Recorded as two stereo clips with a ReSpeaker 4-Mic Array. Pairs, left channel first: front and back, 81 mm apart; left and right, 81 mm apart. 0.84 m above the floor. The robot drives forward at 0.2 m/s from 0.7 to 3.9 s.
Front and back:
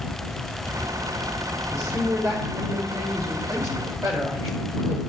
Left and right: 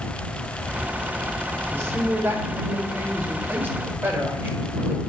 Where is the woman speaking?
145° right, 1.8 m; by 5.0 s 150° right, 2 m.